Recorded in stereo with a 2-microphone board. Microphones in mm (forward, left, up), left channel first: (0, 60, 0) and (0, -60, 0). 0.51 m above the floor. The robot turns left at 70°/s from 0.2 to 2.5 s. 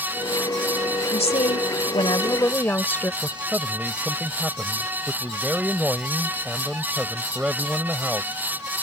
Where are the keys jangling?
I don't hear keys jangling.